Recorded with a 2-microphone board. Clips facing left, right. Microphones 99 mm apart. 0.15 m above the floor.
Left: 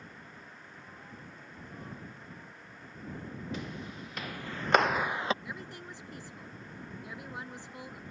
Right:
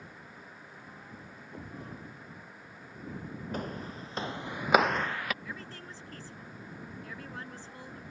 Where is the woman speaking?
15° left (ahead or behind).